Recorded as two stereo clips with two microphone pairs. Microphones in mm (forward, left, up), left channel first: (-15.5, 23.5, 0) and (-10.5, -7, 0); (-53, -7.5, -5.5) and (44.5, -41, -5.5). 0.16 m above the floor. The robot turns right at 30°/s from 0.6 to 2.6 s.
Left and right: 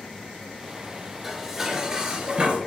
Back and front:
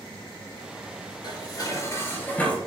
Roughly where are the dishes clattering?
Behind.